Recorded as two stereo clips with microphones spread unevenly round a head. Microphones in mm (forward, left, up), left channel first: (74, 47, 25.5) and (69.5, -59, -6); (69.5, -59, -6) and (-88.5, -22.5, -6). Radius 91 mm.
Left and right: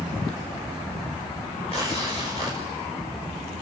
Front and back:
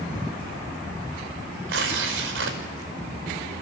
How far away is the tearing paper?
About 5 m.